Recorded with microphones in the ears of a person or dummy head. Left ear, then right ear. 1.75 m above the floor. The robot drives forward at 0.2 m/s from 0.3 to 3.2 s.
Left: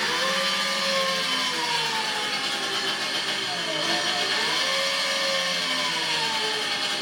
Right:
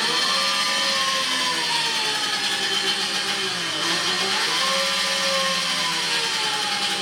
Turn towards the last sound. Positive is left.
turn(degrees=5)  # may be behind; listen again after turning